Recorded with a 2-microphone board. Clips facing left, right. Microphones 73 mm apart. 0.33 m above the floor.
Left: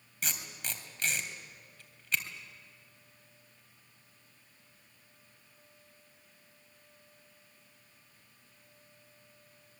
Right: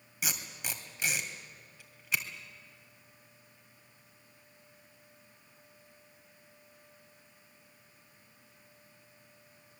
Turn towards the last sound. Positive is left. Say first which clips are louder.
# right 1 dB
turn(degrees=-10)  # may be behind; listen again after turning